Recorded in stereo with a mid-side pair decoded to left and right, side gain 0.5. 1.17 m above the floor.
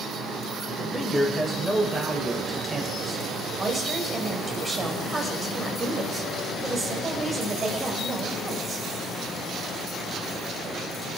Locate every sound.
0.8 s a man speaking: 5° right, 6.5 m; by 3.2 s 15° right, 6.5 m
3.6 s a woman speaking: 25° right, 5.5 m